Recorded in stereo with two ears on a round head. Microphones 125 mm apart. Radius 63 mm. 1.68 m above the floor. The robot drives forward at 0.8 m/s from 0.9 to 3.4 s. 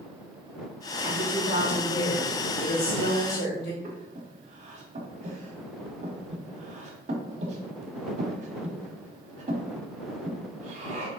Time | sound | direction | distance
1.0 | a woman speaking | 45° left (ahead or behind) | 2 m
3.8 | breathing | 50° right (ahead or behind) | 0.9 m